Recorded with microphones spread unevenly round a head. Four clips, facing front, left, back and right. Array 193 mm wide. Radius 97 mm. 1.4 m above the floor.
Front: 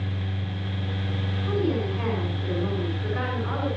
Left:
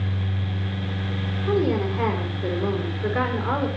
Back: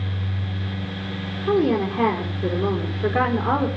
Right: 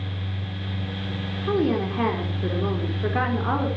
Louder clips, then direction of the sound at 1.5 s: Even, back 7 dB; 155° right.